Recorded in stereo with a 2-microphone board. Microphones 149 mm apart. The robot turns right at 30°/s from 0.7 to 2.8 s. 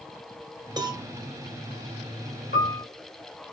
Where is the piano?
75° left (ahead or behind), 1.5 m; by 2.9 s 80° left, 1.5 m.